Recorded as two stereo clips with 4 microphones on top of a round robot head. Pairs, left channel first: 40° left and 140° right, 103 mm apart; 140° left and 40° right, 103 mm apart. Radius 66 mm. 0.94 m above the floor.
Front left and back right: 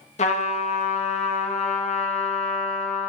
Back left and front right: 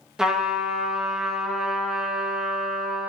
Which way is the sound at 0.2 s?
45° left.